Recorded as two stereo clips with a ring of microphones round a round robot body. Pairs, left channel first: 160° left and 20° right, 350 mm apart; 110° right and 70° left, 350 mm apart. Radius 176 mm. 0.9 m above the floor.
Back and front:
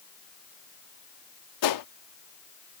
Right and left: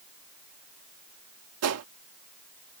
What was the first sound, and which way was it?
A gunshot, 120° left.